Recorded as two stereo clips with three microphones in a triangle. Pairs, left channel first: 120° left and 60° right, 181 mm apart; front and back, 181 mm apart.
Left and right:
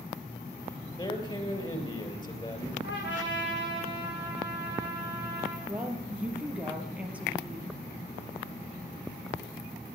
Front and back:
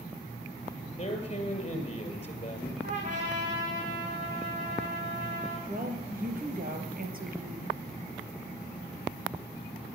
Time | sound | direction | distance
1.0 | a man speaking | 55° left | 3 m
2.8 | a trumpet | 135° left | 6.5 m
5.7 | a woman speaking | 140° right | 3.5 m